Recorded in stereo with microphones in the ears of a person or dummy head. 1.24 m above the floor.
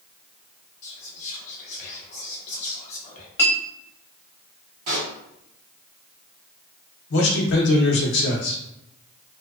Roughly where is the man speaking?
Left.